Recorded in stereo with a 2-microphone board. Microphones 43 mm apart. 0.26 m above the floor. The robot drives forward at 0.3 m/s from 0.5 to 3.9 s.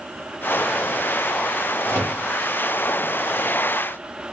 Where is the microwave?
75° right (ahead or behind), 4 m.